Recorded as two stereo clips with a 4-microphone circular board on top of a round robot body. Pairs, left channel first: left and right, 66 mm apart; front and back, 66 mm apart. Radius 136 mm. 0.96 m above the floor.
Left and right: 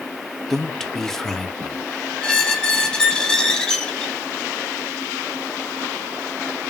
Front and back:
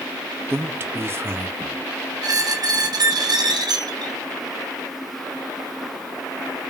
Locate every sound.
0.5 s a man speaking: 170° left, 0.7 m
2.2 s a squeak: 170° left, 0.7 m